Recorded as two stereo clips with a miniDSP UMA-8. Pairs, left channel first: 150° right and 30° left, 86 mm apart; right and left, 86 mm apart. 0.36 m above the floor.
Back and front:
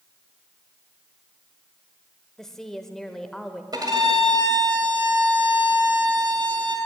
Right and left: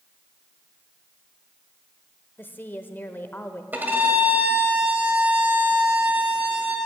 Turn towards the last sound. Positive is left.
turn(degrees=25)